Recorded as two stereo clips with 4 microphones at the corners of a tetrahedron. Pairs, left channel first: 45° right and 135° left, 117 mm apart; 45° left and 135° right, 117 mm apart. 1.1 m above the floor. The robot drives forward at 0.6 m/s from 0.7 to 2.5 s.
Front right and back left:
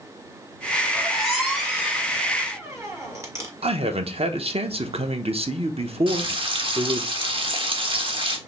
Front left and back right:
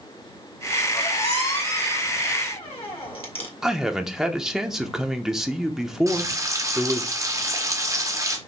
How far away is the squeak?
About 1.9 m.